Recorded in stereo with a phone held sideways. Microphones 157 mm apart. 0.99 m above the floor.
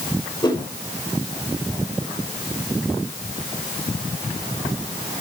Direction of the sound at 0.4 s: 25° left (ahead or behind).